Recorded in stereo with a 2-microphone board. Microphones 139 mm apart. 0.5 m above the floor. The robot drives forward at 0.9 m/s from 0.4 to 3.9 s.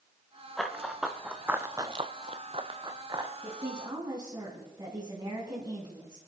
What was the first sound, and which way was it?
Running footsteps, centre (ahead or behind).